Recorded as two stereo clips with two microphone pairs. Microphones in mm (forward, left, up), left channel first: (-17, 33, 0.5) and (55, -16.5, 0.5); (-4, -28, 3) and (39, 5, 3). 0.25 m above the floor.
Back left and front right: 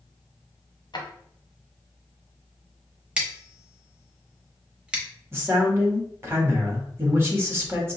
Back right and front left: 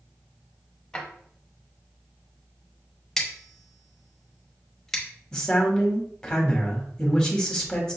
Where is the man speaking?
75° right, 1.1 m.